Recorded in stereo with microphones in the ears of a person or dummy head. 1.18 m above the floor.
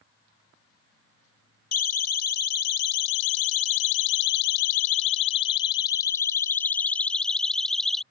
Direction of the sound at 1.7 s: 50° left (ahead or behind).